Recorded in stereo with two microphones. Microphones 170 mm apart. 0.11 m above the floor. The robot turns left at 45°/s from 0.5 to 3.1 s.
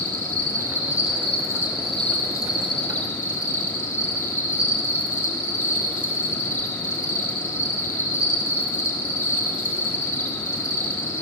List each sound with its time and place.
0.0 s an insect: 115° right, 1.8 m; by 11.2 s 125° left, 1.8 m